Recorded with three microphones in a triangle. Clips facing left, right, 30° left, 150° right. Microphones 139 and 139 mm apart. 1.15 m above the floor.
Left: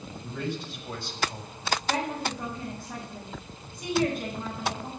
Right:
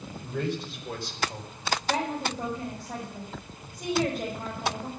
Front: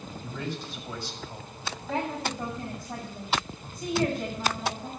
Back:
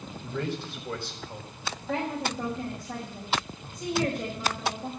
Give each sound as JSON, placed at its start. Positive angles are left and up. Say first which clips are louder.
{"t": 0.2, "sound": "a man speaking", "louder": "right 3 dB, back 4 dB", "azimuth_deg": -115, "distance_m": 4.5}
{"t": 1.9, "sound": "a woman speaking", "louder": "right 1 dB, back 1 dB", "azimuth_deg": -120, "distance_m": 6.0}